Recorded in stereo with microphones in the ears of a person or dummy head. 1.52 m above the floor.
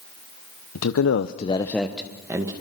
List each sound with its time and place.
0.8 s a man speaking: 85° left, 1.1 m; by 2.5 s 20° right (ahead or behind), 1.9 m